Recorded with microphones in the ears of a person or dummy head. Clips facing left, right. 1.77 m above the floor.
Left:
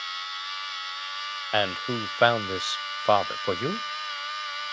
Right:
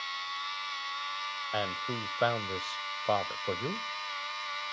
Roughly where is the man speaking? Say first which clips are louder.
Left 8 dB; left.